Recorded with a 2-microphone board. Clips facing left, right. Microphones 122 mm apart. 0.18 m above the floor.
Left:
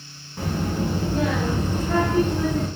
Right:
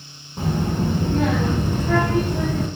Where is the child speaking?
20° right (ahead or behind), 0.6 m; by 2.7 s 70° right (ahead or behind), 1.6 m.